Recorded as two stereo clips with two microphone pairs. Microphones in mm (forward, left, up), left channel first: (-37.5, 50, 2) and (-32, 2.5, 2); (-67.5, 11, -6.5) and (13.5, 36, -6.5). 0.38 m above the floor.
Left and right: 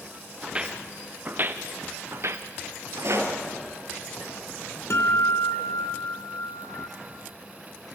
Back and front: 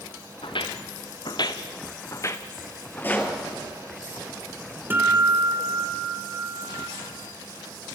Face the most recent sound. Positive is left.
turn(degrees=85)